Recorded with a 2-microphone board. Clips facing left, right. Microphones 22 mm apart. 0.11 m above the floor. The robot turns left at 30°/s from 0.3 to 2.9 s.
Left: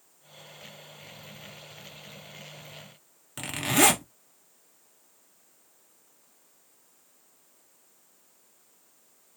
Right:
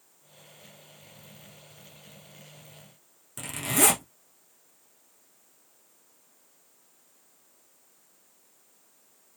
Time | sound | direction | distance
3.4 | a zipper | 30° left (ahead or behind) | 1.1 m